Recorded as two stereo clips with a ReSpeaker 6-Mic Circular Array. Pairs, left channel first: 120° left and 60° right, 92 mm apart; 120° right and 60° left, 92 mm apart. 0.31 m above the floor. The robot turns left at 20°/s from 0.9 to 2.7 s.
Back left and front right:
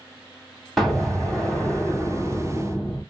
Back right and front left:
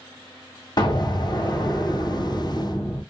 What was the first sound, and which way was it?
An explosion, 150° right.